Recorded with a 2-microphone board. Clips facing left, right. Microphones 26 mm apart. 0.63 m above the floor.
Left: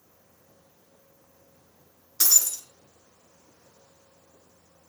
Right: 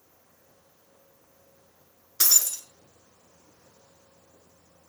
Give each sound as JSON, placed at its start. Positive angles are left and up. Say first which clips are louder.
{"t": 2.2, "sound": "breaking glass", "louder": "even", "side_deg": -15, "distance_m": 3.5}